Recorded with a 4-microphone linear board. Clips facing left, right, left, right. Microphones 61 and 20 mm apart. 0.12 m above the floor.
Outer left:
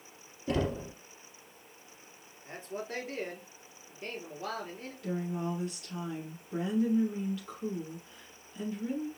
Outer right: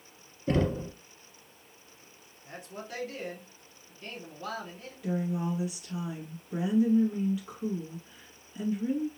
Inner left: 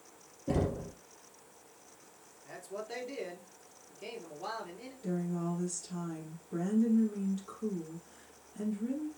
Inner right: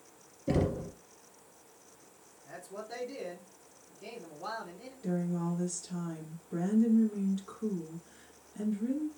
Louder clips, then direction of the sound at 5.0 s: Outer right 3 dB, inner right 2 dB; 10° right (ahead or behind).